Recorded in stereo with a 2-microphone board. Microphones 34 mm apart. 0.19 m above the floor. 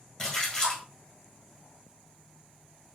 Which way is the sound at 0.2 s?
15° left (ahead or behind).